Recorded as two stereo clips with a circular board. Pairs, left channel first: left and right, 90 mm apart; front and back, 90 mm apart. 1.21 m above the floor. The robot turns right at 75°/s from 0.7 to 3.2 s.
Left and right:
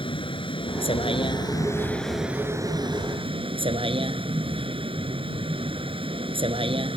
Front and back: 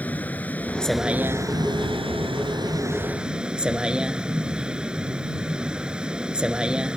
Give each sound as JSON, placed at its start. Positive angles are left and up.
{"t": 0.0, "sound": "a vehicle", "azimuth_deg": 75}